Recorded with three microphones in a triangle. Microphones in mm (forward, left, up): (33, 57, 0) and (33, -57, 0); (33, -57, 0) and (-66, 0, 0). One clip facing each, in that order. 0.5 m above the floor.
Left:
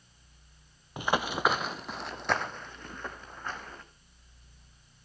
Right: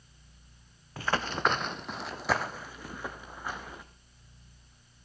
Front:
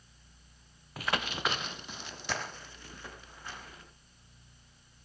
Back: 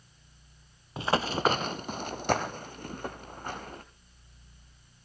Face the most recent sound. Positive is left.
turn(degrees=-170)